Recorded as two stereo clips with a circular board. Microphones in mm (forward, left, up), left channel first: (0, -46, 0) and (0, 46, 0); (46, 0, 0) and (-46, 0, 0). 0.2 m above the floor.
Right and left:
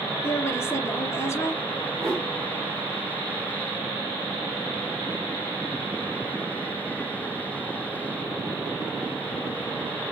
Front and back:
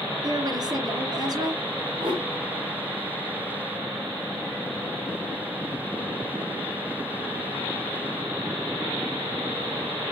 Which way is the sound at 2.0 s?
150° left.